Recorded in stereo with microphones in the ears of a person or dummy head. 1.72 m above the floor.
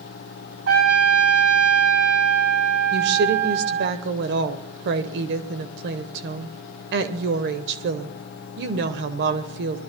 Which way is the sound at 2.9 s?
65° right (ahead or behind).